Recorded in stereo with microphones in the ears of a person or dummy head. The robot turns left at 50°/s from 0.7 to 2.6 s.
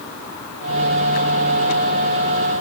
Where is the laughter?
I don't hear laughter.